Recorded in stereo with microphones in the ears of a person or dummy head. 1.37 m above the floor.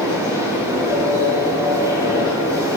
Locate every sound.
0.0 s a machine running: 10° right (ahead or behind), 2.5 m